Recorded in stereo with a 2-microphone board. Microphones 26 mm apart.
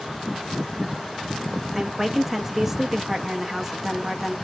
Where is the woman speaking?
15° right (ahead or behind), 0.6 m.